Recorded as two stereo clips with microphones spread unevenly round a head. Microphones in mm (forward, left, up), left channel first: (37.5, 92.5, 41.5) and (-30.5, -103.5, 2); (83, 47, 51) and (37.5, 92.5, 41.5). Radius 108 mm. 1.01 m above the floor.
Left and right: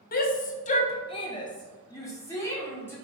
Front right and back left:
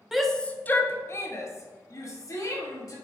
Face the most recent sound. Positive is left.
turn(degrees=-10)